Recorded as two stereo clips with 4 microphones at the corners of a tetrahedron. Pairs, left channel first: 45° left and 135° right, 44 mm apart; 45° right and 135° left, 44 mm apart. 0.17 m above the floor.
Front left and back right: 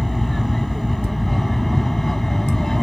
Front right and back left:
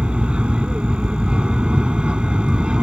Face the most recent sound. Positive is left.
turn(degrees=115)